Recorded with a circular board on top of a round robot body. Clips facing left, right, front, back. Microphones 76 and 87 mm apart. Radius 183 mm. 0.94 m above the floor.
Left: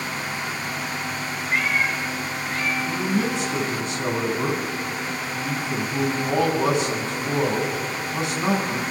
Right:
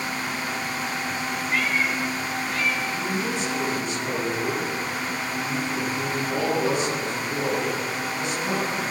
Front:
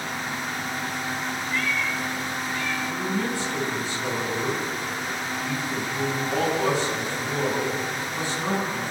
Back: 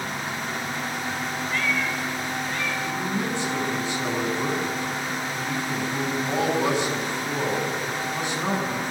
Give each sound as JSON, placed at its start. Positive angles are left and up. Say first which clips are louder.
{"t": 1.5, "sound": "a cat meowing", "louder": "left 2 dB, back 1 dB", "azimuth_deg": 150, "distance_m": 3.5}
{"t": 2.9, "sound": "a man speaking", "louder": "left 3 dB, even", "azimuth_deg": 110, "distance_m": 8.5}